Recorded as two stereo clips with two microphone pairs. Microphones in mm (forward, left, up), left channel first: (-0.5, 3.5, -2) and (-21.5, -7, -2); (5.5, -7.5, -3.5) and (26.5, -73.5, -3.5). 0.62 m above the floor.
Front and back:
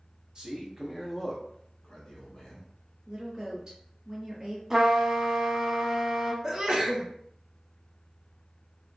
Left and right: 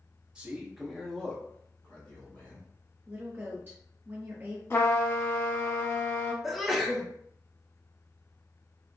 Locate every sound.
0.3 s a man speaking: 135° right, 0.8 m; by 2.7 s 65° left, 1.2 m
3.1 s a woman speaking: 115° right, 0.6 m
4.7 s a trumpet: 150° left, 0.6 m
6.4 s a sneeze: 150° right, 0.6 m